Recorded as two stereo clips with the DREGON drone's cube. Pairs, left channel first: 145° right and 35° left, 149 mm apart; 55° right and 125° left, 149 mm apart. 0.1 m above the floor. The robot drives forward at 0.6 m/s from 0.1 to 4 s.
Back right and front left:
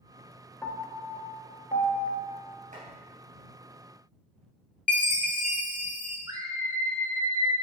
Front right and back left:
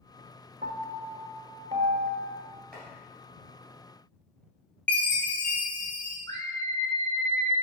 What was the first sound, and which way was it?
A piano, 135° left.